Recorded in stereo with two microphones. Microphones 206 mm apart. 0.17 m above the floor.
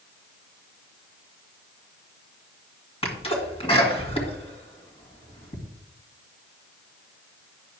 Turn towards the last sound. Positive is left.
turn(degrees=30)  # may be behind; listen again after turning